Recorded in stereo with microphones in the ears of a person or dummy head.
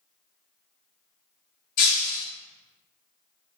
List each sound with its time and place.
1.8 s breaking glass: 45° left (ahead or behind), 1.5 m